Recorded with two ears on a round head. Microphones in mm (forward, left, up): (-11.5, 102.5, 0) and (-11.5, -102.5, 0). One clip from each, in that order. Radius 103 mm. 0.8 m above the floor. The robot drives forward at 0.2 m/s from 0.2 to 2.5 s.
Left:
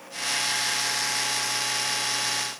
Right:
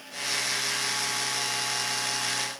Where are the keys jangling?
No keys jangling in this recording.